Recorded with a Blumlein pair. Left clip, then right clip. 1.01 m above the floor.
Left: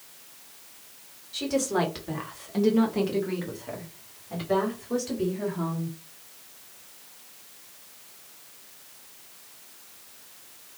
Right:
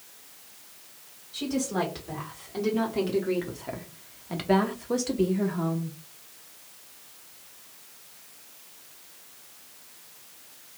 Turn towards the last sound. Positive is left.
turn(degrees=-75)